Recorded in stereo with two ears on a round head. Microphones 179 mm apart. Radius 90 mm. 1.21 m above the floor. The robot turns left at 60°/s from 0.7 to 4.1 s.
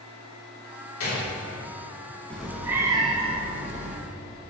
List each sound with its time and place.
1.0 s a gunshot: 80° left, 3.5 m; by 1.3 s 60° left (ahead or behind), 3.5 m
2.3 s a cat meowing: 10° left, 1.4 m; by 4.0 s 90° right, 1.4 m